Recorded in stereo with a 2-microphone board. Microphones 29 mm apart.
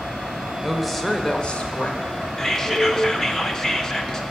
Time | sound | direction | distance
0.6 | a woman speaking | 10° right (ahead or behind) | 1.2 m
2.4 | whispering | 15° left (ahead or behind) | 0.7 m